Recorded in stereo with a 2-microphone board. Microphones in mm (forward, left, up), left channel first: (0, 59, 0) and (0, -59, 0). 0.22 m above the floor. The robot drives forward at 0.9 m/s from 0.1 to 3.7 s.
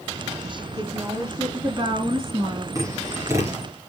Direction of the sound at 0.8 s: 25° right (ahead or behind).